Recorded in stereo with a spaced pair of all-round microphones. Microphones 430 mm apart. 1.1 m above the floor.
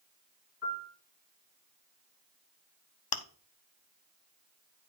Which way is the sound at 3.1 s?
60° left (ahead or behind).